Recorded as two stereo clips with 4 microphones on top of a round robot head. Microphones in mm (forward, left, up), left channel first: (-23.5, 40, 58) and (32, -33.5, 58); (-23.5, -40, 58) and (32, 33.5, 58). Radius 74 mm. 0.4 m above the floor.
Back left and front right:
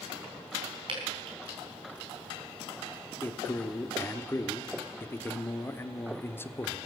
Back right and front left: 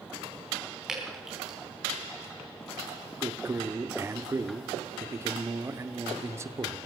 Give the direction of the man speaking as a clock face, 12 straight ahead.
9 o'clock.